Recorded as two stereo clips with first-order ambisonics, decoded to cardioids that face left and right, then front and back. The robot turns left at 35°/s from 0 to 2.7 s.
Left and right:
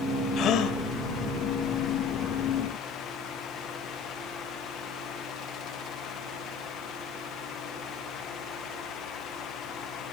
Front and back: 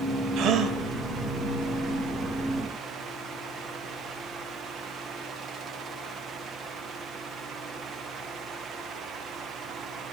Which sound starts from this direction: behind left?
A gasp, at 0.4 s.